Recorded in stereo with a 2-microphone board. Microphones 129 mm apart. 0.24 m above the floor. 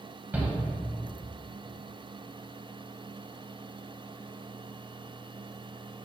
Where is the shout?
15° right (ahead or behind), 1.5 m.